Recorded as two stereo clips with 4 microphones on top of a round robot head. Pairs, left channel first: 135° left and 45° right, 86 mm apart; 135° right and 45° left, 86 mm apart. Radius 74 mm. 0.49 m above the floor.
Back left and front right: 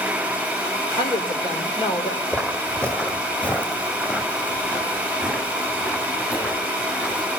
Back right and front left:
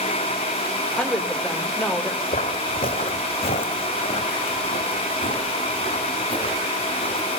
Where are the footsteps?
145° right, 1.5 m; by 7.3 s 155° right, 4.5 m.